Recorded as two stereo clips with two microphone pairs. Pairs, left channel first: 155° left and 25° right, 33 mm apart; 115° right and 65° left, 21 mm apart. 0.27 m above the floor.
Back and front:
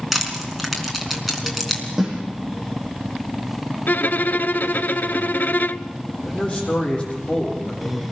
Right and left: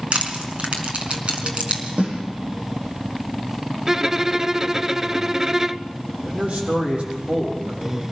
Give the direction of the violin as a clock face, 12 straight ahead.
7 o'clock.